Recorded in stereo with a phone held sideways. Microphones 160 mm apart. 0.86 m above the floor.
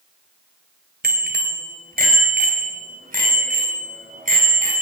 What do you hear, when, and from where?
1.0 s a bicycle bell: 75° right (ahead or behind), 2.5 m; by 4.8 s 55° right (ahead or behind), 5.5 m